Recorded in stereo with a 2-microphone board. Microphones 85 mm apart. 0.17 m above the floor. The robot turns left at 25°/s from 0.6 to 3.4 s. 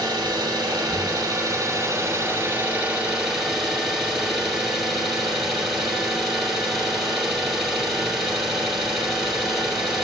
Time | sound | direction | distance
0.0 | an engine running | 110° right | 2.5 m